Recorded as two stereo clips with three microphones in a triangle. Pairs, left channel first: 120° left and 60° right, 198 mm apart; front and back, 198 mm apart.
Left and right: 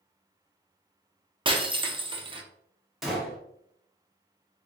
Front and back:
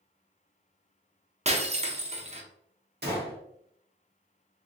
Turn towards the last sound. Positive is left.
turn(degrees=-150)